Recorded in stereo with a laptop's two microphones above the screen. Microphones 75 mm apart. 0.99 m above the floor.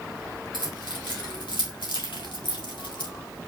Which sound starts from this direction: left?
Keys jangling, at 0.5 s.